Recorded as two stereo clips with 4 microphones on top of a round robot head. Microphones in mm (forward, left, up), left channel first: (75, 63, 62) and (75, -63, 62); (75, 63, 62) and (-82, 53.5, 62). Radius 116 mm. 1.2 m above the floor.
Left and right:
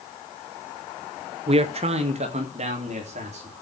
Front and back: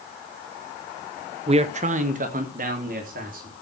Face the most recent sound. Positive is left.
turn(degrees=-135)